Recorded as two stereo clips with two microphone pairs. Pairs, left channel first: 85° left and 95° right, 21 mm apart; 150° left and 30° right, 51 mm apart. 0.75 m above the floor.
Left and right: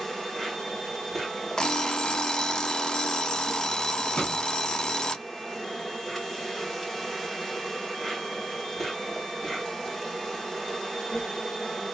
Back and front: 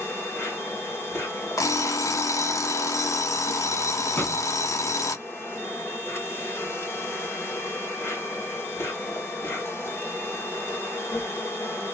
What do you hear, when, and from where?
0.0 s an insect: 145° left, 2.5 m
1.6 s an alarm clock: 140° left, 0.6 m
4.2 s a drawer: 105° left, 1.5 m